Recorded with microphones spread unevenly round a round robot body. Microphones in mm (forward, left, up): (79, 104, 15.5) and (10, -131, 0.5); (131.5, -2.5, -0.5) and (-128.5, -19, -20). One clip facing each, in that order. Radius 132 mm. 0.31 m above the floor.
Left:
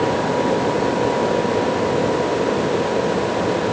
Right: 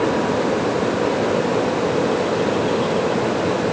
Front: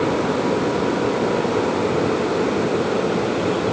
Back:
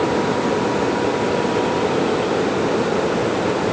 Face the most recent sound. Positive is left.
No sound to turn to.